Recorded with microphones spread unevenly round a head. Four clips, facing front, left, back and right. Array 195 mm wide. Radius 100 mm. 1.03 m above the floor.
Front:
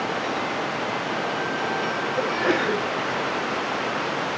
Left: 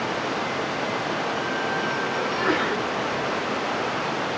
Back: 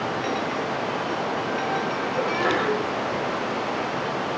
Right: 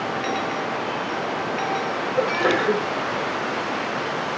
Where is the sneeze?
80° right, 5.5 m.